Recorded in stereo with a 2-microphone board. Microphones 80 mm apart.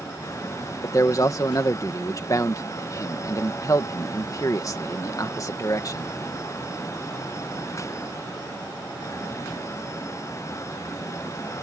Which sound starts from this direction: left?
A man speaking, at 0.8 s.